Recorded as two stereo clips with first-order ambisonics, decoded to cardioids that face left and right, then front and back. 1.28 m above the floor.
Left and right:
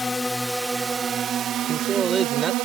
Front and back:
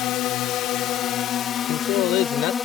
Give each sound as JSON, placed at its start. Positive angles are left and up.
{"t": 0.0, "sound": "a drone", "azimuth_deg": 15}
{"t": 1.7, "sound": "a man speaking", "azimuth_deg": -25}